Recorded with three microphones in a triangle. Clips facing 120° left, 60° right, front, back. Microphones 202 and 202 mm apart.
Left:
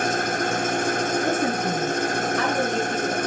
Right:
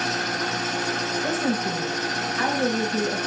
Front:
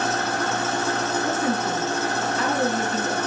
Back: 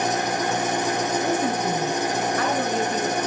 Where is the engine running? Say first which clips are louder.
Left 4 dB, back 1 dB; 110° left, 1.2 m.